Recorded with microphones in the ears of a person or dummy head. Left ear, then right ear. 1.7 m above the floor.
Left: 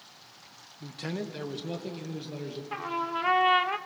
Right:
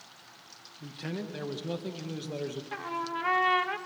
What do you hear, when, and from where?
0.8 s a man speaking: 15° left (ahead or behind), 2 m; by 2.6 s 35° right (ahead or behind), 2 m
2.7 s a trumpet: 15° left (ahead or behind), 1.0 m